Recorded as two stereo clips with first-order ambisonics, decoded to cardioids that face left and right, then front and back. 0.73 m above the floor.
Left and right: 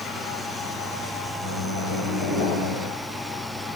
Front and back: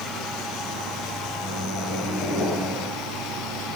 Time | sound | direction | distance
1.4 | a microwave | 80° left | 3 m